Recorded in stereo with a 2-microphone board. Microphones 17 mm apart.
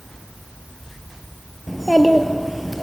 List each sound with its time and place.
1.7 s a child speaking: centre (ahead or behind), 1.4 m